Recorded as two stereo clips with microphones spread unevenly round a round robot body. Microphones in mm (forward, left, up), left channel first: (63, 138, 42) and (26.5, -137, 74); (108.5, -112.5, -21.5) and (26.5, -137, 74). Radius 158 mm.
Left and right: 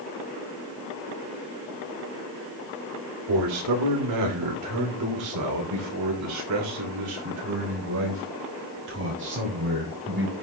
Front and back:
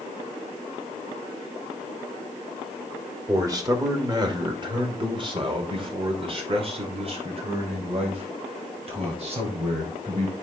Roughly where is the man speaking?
Right.